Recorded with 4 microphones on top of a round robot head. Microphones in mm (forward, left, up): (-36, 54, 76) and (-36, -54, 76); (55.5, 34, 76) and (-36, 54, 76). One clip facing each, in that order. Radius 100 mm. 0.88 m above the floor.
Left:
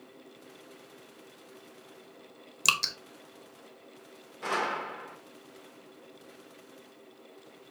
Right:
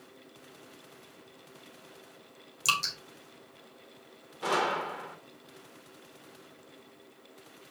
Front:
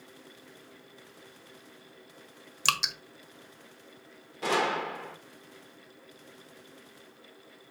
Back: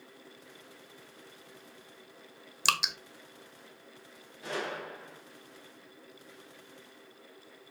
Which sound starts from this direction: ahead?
A gunshot, at 4.4 s.